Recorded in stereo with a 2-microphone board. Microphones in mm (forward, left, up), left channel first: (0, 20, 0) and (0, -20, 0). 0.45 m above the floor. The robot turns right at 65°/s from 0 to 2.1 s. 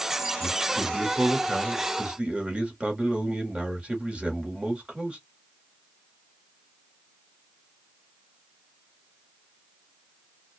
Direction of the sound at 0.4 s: 155° right.